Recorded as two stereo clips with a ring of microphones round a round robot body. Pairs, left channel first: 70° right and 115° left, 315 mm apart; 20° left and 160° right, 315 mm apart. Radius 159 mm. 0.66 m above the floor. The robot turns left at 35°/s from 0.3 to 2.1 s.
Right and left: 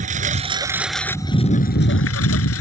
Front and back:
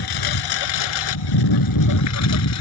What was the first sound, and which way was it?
A lawn mower, 45° left.